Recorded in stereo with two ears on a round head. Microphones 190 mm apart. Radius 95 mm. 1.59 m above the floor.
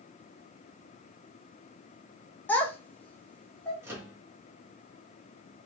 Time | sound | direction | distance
2.5 | a child speaking | 10° left (ahead or behind) | 0.9 m
3.8 | a microwave | 10° right (ahead or behind) | 1.5 m